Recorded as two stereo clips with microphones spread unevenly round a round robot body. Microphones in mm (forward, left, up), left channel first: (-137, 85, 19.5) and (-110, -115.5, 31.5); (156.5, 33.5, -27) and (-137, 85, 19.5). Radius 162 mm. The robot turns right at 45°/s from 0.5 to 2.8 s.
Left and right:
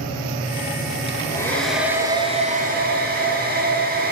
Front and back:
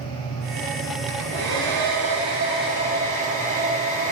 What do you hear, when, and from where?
1.1 s a hair dryer: 160° left, 4 m; by 4.1 s 120° right, 4 m